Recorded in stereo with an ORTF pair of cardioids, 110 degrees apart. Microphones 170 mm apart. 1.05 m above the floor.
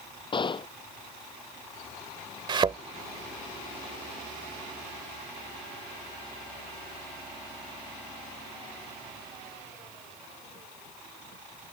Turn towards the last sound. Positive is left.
turn(degrees=-30)